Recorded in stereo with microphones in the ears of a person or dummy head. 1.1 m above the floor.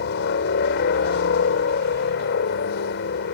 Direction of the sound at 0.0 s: 65° left (ahead or behind).